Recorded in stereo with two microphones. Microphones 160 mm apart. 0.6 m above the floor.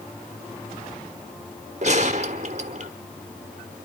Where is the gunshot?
50° right (ahead or behind), 0.8 m.